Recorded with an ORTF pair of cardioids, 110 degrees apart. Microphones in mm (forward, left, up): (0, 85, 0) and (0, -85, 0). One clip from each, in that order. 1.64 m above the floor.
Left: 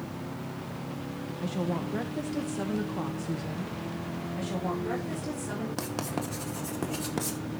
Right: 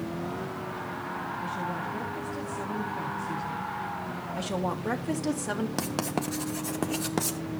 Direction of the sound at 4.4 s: 45° right.